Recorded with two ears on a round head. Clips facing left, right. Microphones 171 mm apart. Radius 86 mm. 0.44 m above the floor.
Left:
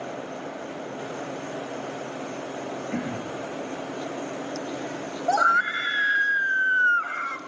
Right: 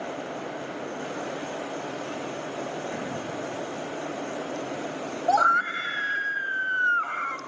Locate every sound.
2.9 s throat clearing: 45° left (ahead or behind), 8.5 m
5.3 s a scream: 15° left (ahead or behind), 1.8 m